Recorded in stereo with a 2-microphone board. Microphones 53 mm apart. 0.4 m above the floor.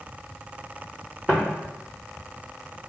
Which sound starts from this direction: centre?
Footsteps, at 1.3 s.